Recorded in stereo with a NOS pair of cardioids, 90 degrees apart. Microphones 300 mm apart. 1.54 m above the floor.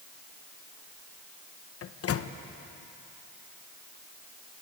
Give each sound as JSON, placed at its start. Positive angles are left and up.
{"t": 1.8, "sound": "a microwave", "azimuth_deg": 55, "distance_m": 1.2}